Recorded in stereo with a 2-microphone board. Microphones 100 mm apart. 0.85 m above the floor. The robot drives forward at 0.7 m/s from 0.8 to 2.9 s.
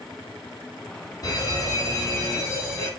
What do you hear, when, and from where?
1.2 s a fire alarm: 40° left (ahead or behind), 4 m; by 2.9 s 30° left (ahead or behind), 4.5 m